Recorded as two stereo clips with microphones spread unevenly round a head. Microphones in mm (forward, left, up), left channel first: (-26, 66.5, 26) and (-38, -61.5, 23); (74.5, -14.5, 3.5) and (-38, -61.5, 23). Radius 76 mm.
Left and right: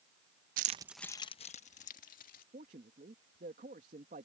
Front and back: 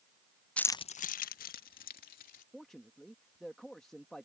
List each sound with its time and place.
0.6 s keys jangling: 60° right; by 2.4 s 50° left
2.5 s a man speaking: 65° right